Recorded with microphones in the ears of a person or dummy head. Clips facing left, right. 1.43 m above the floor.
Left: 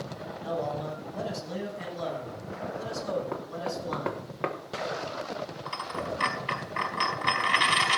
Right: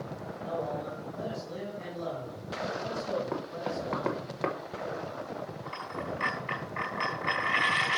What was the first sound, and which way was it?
A man speaking, 70° left (ahead or behind).